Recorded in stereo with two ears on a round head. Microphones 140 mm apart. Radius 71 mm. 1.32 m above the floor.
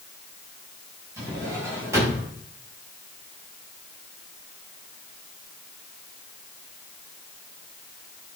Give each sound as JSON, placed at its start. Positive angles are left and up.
{"t": 1.2, "sound": "a drawer", "side_deg": -15, "distance_m": 6.0}